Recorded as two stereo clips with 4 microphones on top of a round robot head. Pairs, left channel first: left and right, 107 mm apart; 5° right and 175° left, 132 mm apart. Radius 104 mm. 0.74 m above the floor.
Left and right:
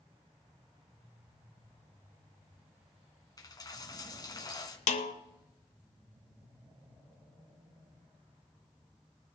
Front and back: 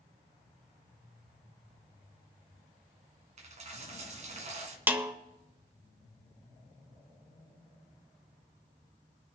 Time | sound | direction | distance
3.4 | a dropped coin | 145° left | 1.6 m
4.9 | a snare drum | 100° left | 0.9 m